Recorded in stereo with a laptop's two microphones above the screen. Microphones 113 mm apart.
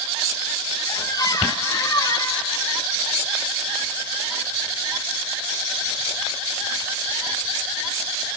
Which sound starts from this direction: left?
A squeak, at 0.9 s.